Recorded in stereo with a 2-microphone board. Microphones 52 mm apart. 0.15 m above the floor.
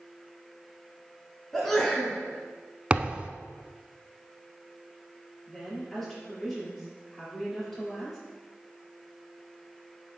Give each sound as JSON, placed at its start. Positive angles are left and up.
{"t": 1.5, "sound": "a sneeze", "side_deg": 10, "distance_m": 1.5}
{"t": 2.9, "sound": "a thud", "side_deg": -25, "distance_m": 0.5}
{"t": 5.5, "sound": "a woman speaking", "side_deg": 10, "distance_m": 3.0}